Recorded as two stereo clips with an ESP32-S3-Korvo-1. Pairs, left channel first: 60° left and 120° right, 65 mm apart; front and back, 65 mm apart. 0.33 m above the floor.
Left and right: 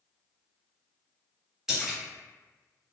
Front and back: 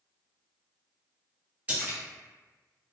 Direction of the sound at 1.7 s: 170° left.